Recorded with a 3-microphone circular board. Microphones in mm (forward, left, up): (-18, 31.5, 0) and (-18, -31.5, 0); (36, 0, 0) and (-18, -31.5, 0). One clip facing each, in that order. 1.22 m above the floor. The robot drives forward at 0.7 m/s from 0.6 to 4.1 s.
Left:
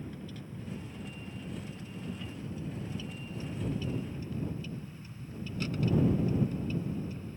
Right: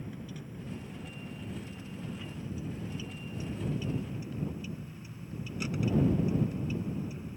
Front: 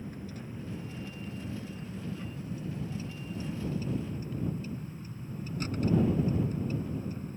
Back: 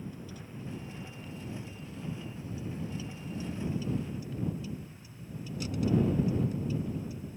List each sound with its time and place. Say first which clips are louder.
0.0 s a vehicle: even, front 2 dB; 10° right; by 7.4 s 15° right